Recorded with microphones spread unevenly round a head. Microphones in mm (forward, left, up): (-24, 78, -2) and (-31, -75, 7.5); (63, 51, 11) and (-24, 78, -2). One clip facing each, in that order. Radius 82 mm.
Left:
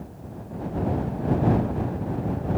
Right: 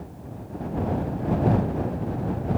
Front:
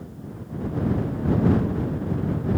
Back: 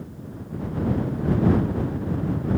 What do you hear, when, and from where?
Only background noise.